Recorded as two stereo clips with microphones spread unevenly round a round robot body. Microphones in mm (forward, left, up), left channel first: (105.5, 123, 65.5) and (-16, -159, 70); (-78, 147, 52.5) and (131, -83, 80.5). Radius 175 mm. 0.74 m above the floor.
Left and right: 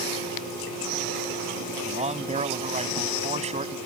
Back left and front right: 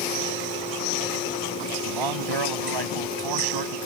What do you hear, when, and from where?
1.9 s a man speaking: 45° right